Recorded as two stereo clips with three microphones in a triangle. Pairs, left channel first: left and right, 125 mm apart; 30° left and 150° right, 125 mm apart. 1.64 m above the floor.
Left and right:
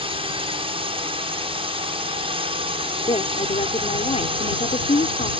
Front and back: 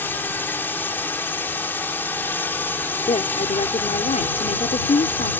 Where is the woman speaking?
55° left.